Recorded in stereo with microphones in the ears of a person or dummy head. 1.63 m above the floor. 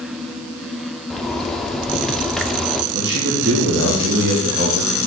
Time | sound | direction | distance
1.1 | a zipper | centre (ahead or behind) | 0.6 m
2.9 | a man speaking | 60° right (ahead or behind) | 1.6 m